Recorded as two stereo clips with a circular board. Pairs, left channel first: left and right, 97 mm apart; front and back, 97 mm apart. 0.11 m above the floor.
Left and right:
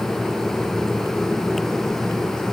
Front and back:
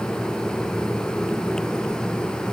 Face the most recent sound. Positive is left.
No sound to turn to.